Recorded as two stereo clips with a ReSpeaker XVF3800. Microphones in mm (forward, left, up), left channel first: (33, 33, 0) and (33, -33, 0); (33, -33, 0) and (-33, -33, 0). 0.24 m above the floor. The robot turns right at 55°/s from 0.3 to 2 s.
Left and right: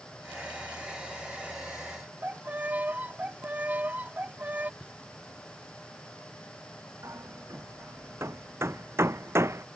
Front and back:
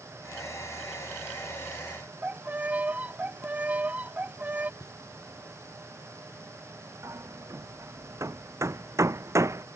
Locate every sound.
2.2 s a violin: 135° right
4.8 s knocking: 10° right
7.0 s hammering: 140° right